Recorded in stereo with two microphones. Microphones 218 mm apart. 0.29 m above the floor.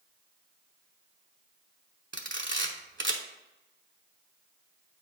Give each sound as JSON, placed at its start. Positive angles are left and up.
{"t": 2.1, "sound": "a camera shutter", "side_deg": -65, "distance_m": 0.9}